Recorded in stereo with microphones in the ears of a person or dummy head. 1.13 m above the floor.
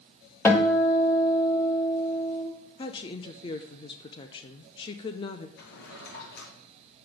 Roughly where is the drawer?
Left.